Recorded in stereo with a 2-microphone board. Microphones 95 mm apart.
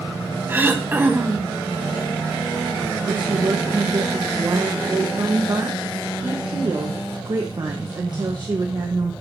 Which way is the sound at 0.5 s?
25° right (ahead or behind).